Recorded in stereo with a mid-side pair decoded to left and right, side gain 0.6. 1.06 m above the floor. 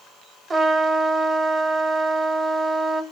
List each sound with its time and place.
0.5 s a trumpet: 30° right, 0.8 m